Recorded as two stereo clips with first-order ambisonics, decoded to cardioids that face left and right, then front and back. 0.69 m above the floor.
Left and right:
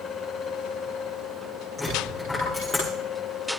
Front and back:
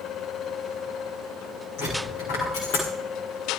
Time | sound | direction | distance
1.8 | a dropped coin | 10° left | 9.5 m